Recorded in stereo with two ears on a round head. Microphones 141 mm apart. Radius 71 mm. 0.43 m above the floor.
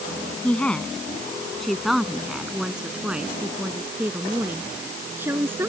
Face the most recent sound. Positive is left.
turn(degrees=-15)  # may be behind; listen again after turning